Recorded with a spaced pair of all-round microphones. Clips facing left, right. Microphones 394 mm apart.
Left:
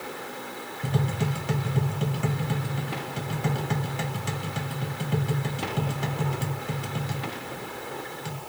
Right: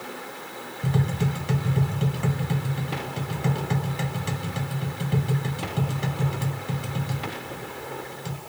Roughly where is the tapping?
Centre.